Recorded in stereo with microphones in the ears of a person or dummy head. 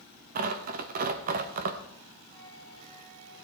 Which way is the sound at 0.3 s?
45° right (ahead or behind).